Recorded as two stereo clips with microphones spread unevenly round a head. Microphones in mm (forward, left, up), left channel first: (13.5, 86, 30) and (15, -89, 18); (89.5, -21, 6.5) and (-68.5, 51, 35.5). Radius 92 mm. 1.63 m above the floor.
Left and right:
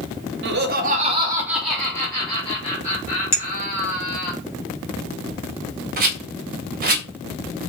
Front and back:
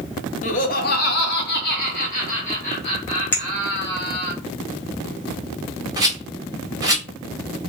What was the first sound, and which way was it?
Laughter, 80° right.